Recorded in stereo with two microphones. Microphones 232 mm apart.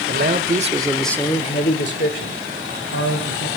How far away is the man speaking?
About 1.8 m.